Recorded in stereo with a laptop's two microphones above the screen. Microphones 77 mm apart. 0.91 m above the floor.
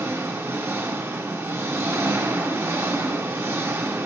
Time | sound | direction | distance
0.0 | an engine running | 30° right (ahead or behind) | 0.8 m